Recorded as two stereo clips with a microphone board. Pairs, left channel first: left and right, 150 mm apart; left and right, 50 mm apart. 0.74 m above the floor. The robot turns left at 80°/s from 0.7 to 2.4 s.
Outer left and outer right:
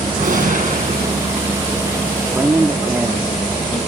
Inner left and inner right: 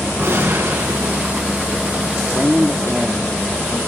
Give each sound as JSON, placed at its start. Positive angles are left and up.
{"t": 0.2, "sound": "a gunshot", "azimuth_deg": -60, "distance_m": 7.0}
{"t": 2.1, "sound": "a man speaking", "side_deg": 10, "distance_m": 1.6}